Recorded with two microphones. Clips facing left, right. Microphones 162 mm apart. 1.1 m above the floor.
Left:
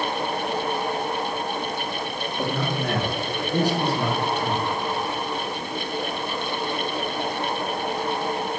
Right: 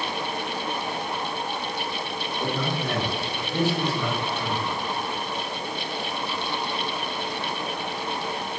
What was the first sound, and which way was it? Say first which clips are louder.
A man speaking: left 2 dB; 75° left (ahead or behind).